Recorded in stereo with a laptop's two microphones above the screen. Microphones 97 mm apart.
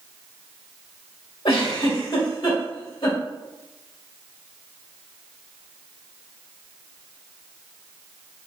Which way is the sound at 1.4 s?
70° left (ahead or behind).